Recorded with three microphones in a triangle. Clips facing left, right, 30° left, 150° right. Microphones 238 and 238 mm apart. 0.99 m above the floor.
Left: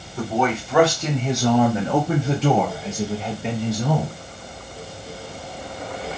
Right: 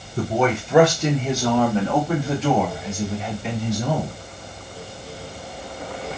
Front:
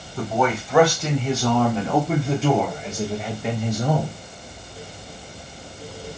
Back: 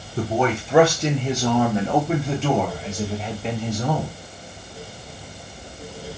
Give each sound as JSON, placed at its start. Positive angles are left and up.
{"t": 0.2, "sound": "a man speaking", "azimuth_deg": -110, "distance_m": 1.0}